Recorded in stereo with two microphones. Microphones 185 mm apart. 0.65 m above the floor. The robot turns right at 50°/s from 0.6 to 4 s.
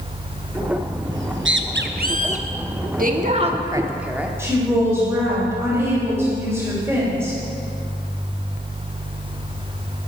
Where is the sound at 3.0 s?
60° right, 1.1 m; by 4.3 s 10° right, 1.1 m.